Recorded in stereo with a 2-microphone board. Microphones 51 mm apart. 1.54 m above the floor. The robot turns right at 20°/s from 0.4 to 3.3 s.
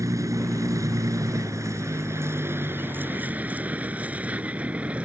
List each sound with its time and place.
0.0 s a vehicle: 80° right; by 5.1 s 25° right (ahead or behind)